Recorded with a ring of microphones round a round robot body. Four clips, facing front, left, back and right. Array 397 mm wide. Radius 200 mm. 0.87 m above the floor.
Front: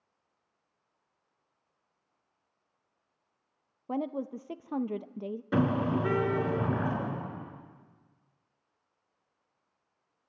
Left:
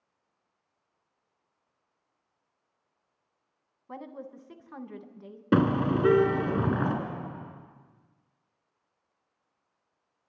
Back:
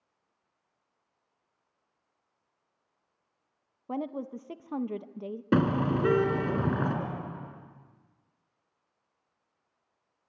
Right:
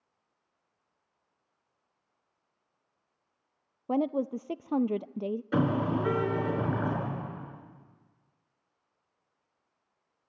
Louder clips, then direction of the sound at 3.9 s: Right 13 dB, front 1 dB; 90° right.